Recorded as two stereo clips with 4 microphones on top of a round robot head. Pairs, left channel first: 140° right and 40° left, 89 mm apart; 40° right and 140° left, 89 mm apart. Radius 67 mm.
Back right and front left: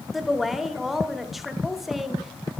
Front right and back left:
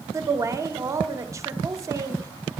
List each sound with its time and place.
0.1 s a woman speaking: 125° left, 0.9 m